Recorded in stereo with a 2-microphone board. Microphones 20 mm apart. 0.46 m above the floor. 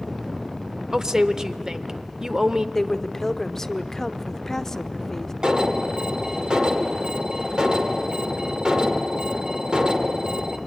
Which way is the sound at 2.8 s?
20° left (ahead or behind).